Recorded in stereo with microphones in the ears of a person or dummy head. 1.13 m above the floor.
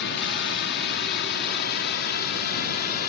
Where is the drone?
55° left (ahead or behind); by 3.1 s 50° left (ahead or behind).